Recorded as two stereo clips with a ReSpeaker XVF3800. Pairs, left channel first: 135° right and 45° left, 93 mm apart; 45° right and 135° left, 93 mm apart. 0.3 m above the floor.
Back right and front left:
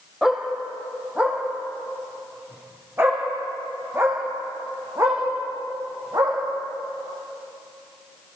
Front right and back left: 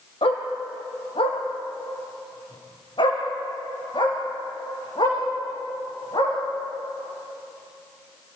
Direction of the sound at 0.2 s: 40° right.